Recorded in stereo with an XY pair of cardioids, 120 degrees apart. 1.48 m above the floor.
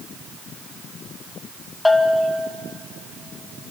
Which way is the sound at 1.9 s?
10° left.